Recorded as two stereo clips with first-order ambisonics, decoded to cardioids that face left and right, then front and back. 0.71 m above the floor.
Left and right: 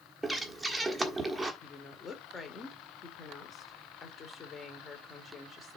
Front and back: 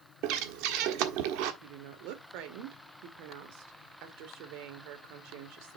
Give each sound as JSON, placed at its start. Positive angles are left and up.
{"t": 0.2, "sound": "breathing", "azimuth_deg": -175, "distance_m": 1.4}
{"t": 1.6, "sound": "a woman speaking", "azimuth_deg": 160, "distance_m": 2.0}